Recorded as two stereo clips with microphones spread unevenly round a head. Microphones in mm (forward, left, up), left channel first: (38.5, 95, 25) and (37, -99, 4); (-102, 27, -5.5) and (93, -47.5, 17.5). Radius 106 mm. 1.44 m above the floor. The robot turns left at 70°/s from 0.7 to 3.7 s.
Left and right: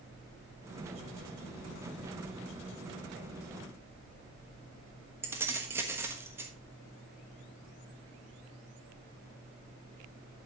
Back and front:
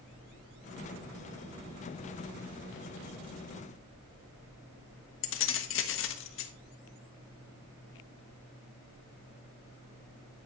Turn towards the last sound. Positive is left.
turn(degrees=-170)